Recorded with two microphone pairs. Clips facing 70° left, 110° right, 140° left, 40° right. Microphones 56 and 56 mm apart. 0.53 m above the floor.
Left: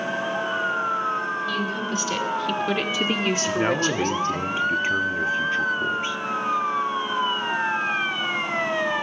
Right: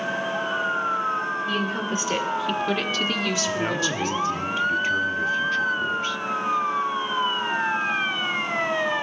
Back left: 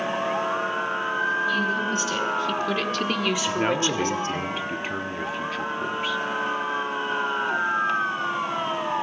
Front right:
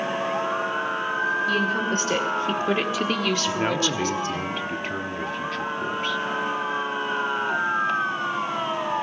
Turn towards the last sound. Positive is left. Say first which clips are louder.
# left 3 dB, back left 1 dB
turn(degrees=60)